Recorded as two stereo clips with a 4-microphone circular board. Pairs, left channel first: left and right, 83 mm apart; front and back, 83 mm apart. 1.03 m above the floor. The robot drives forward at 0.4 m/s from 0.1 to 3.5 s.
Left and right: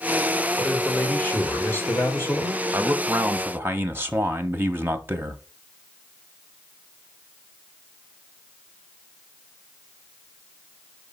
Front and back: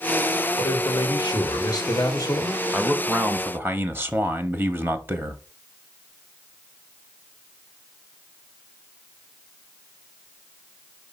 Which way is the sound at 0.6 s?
20° left.